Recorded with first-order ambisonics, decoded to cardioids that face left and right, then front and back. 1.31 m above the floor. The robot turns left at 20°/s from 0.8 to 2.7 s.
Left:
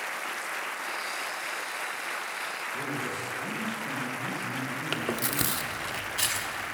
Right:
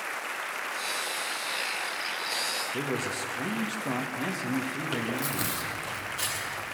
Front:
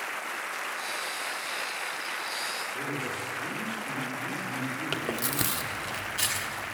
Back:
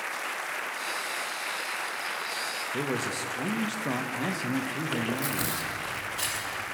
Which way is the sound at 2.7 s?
150° right.